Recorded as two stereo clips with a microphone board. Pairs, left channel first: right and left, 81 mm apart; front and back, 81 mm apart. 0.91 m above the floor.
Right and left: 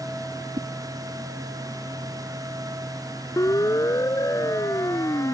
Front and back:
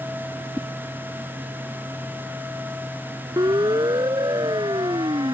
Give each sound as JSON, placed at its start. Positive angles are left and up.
{"t": 0.6, "sound": "a whoosh", "azimuth_deg": 85}
{"t": 3.4, "sound": "a siren", "azimuth_deg": -140}